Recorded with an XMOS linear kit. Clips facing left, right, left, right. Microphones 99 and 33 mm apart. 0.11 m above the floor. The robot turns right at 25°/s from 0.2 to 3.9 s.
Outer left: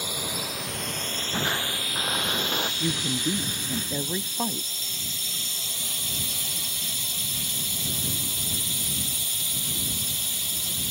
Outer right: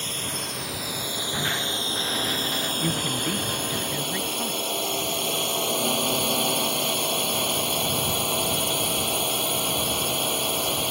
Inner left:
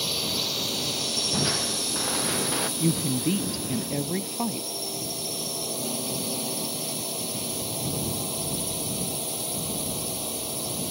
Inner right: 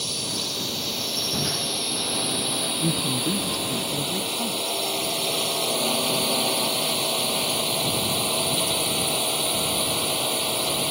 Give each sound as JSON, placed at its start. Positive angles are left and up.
{"t": 0.0, "sound": "a drone", "azimuth_deg": 170}
{"t": 1.3, "sound": "crushing", "azimuth_deg": 15}
{"t": 2.8, "sound": "a woman speaking", "side_deg": 5}